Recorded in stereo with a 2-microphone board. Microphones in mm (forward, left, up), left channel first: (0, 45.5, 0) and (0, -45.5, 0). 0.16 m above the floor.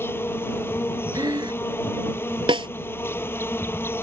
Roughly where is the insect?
Left.